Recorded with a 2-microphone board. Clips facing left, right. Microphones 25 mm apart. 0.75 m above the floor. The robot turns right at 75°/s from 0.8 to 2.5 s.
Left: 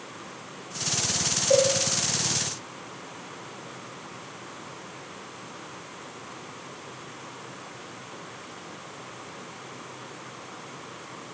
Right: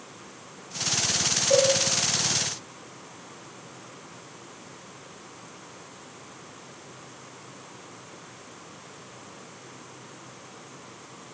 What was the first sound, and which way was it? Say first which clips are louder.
A cowbell: left 1 dB; 40° left (ahead or behind).